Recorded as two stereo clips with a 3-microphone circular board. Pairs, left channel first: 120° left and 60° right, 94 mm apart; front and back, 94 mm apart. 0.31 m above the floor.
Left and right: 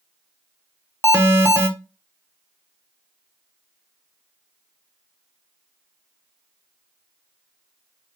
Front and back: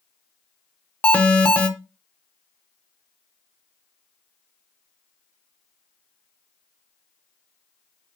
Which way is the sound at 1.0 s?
55° right.